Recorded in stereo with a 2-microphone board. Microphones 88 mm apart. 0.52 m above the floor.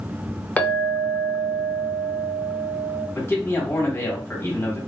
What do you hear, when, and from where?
0.6 s a clink: 15° left (ahead or behind), 0.5 m
3.1 s a man speaking: 25° left (ahead or behind), 1.1 m